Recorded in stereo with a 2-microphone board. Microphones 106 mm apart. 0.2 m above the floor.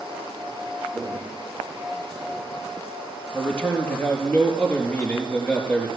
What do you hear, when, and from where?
0.9 s footsteps: centre (ahead or behind), 6 m; by 2.6 s 10° right (ahead or behind), 6 m
3.3 s a man speaking: 15° left (ahead or behind), 5 m